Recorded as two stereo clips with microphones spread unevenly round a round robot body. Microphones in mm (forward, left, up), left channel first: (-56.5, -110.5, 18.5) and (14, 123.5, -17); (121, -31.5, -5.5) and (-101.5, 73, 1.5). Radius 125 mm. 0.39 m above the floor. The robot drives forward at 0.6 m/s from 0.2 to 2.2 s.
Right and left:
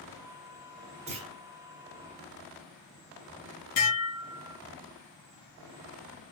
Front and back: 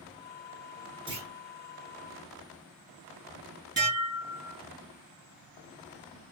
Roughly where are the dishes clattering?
Behind right.